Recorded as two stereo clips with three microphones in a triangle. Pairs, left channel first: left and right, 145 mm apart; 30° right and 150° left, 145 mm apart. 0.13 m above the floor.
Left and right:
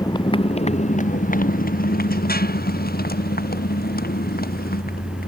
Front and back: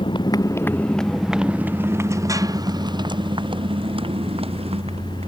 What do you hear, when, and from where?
0.0 s a motorcycle: 25° left; by 5.3 s 100° left